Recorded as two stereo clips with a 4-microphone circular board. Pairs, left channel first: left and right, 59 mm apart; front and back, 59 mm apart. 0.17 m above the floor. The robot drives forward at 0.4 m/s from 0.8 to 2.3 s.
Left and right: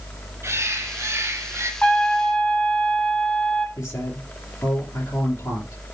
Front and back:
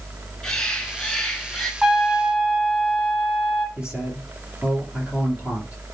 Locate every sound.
0.4 s a bird: 80° right, 2 m; by 1.7 s 90° right, 2 m
1.8 s a trumpet: 100° left, 1.4 m; by 3.7 s 120° left, 1.4 m
3.8 s a man speaking: 110° left, 4.5 m